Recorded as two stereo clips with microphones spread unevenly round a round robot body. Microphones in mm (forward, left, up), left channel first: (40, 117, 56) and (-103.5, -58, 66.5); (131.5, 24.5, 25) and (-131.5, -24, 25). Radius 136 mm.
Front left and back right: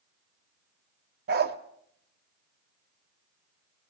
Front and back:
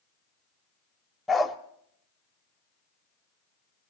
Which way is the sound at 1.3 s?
80° right.